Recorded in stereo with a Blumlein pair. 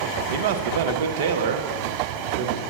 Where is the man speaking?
55° right, 0.7 m.